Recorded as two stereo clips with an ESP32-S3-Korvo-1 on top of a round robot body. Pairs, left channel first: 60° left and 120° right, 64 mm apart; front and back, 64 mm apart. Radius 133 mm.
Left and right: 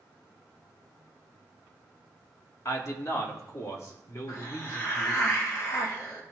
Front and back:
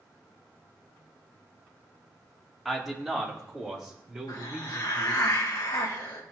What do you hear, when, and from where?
2.6 s a man speaking: 90° left, 1.8 m; by 5.3 s 105° left, 3.5 m
4.3 s a hiss: 20° left, 1.6 m